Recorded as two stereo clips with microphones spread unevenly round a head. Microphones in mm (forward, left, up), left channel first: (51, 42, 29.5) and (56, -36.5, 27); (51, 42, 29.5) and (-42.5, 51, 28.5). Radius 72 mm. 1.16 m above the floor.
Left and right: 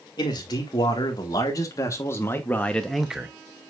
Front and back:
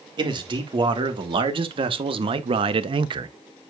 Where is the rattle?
I don't hear a rattle.